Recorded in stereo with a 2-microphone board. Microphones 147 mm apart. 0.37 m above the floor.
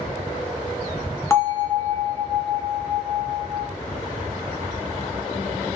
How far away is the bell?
About 1.1 m.